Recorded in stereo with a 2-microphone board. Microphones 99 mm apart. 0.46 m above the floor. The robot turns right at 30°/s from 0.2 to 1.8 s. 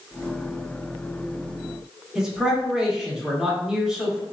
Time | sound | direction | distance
2.1 | a man speaking | 5° right (ahead or behind) | 0.9 m